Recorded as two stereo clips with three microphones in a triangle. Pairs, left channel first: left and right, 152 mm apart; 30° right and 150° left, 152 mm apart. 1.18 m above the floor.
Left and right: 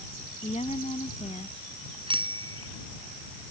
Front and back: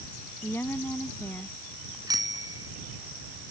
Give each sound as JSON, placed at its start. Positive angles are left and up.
{"t": 0.4, "sound": "a woman speaking", "azimuth_deg": 45}
{"t": 2.1, "sound": "a bicycle bell", "azimuth_deg": -145}